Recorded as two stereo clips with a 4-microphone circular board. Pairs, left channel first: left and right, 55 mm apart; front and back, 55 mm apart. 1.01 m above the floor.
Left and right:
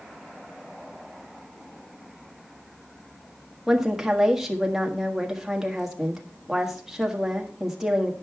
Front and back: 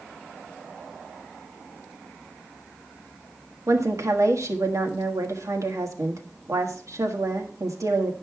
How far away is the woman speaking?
About 1.5 m.